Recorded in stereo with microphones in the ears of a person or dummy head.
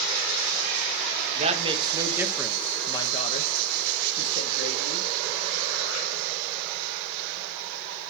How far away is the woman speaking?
About 1.3 m.